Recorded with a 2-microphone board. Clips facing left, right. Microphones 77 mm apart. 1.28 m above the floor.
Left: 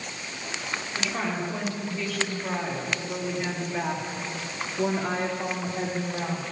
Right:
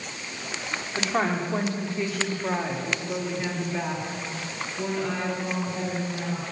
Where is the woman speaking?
45° right (ahead or behind), 4 m; by 6.4 s 50° left (ahead or behind), 4.5 m.